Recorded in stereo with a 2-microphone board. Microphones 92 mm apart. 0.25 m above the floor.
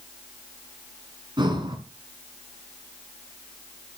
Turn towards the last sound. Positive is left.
turn(degrees=-60)  # may be behind; listen again after turning